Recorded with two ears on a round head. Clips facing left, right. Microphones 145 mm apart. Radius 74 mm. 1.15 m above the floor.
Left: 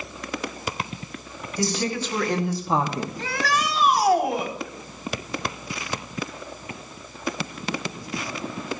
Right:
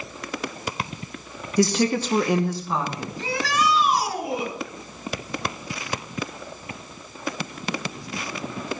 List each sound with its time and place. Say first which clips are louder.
1.6 s a woman speaking: right 6 dB; 60° right (ahead or behind), 1.5 m; by 3.1 s 45° left (ahead or behind), 1.5 m
3.2 s a shout: right 3 dB; 50° left (ahead or behind), 3.5 m